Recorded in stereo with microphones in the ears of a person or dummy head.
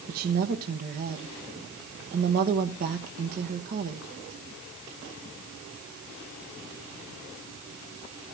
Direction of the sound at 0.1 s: 45° right (ahead or behind).